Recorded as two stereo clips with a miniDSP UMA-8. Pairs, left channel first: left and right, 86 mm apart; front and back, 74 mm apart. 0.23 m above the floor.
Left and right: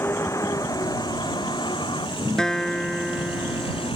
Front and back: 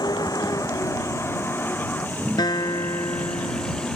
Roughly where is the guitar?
Ahead.